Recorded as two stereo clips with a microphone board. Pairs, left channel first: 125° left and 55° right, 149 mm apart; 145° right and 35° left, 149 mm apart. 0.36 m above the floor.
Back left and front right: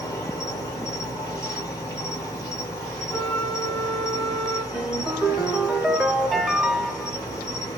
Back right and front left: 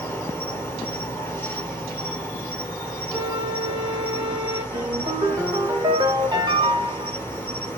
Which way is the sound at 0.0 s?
155° left.